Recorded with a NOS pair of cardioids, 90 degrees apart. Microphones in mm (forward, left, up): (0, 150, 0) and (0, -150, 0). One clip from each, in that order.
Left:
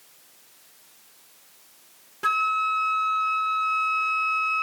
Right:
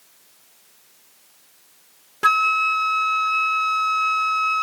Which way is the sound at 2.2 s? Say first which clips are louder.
Right 5 dB; 40° right.